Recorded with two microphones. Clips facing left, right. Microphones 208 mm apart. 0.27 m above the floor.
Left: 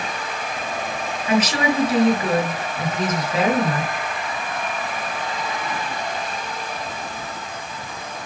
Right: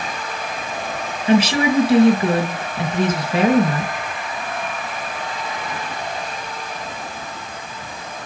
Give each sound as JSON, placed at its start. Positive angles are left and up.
{"t": 1.3, "sound": "a woman speaking", "side_deg": -30, "distance_m": 3.5}